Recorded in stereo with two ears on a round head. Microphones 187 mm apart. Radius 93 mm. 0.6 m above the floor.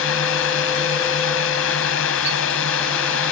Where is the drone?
70° left (ahead or behind).